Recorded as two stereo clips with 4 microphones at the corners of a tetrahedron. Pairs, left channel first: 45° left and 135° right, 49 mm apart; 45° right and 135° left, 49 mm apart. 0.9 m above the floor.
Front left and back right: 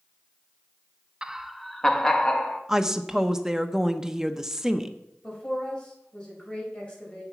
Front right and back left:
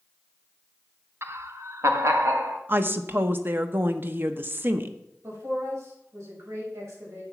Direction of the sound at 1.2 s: 155° left.